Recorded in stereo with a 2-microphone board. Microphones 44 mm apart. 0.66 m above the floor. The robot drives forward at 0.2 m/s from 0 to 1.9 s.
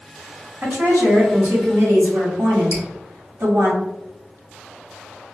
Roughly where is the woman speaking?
Right.